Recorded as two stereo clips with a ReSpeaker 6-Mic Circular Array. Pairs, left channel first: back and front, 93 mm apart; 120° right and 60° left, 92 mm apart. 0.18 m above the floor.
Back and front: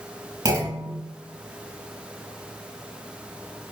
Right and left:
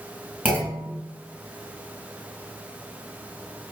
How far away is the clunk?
About 1.3 m.